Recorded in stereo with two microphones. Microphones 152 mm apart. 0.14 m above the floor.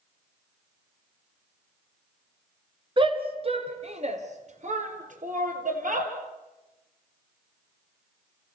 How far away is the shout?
About 2.0 m.